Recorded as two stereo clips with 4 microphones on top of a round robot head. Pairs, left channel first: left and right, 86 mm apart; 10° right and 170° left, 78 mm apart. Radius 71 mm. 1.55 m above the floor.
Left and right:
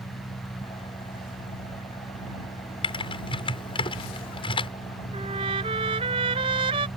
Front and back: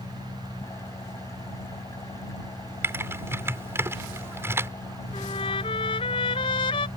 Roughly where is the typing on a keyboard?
Left.